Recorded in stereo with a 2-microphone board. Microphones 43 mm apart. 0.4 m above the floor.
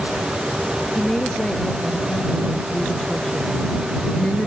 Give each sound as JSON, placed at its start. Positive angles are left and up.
{"t": 0.9, "sound": "a woman speaking", "side_deg": 20}